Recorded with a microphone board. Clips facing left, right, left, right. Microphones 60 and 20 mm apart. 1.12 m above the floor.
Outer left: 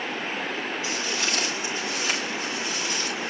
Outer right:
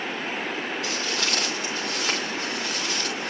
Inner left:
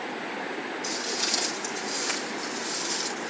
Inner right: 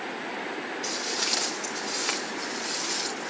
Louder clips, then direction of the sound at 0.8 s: Even, even; 80° right.